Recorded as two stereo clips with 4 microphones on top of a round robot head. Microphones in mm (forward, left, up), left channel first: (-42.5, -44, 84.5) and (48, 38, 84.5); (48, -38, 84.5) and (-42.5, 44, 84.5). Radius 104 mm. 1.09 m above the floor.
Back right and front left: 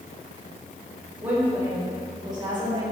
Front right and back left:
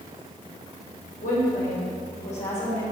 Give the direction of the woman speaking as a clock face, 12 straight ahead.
1 o'clock.